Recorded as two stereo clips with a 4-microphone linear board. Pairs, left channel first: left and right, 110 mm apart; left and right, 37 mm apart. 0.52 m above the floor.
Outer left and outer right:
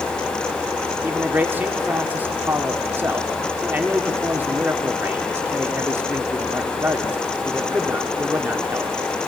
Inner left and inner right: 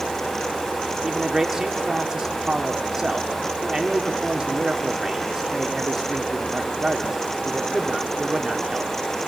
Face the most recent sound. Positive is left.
turn(degrees=-15)  # may be behind; listen again after turning